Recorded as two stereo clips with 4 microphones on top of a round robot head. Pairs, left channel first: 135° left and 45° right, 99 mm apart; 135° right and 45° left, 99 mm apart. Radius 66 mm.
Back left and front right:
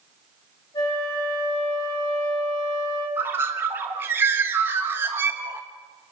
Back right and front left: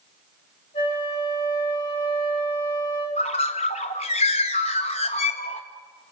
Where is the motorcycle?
No motorcycle in this recording.